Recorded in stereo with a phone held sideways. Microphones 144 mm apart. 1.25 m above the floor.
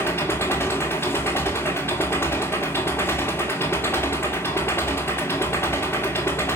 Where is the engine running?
15° left (ahead or behind), 2.0 m.